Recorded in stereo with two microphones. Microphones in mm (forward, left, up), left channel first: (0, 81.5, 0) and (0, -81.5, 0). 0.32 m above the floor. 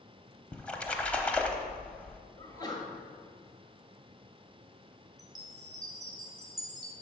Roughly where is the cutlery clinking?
I don't hear cutlery clinking.